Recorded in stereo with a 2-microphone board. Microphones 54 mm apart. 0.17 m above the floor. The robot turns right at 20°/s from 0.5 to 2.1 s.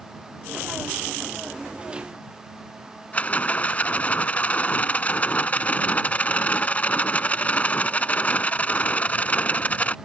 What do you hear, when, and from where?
3.1 s a rattle: 30° left (ahead or behind)